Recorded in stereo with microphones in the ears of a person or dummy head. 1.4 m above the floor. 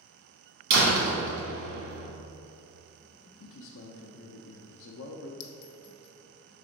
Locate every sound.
0.7 s a door slam: 70° right (ahead or behind), 1.5 m
3.4 s a man speaking: 65° left (ahead or behind), 0.5 m
5.4 s a clink: 60° left (ahead or behind), 0.6 m